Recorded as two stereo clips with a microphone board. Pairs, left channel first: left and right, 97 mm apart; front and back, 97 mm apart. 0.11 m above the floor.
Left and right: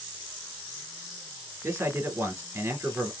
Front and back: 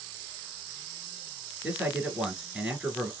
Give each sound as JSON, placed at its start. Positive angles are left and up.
{"t": 1.6, "sound": "a man speaking", "azimuth_deg": -110, "distance_m": 1.2}